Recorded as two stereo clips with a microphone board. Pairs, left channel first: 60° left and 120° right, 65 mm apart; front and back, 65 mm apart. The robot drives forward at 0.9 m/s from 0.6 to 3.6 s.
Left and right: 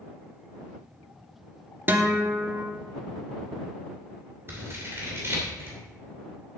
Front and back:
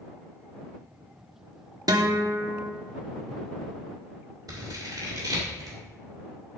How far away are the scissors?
About 2.5 m.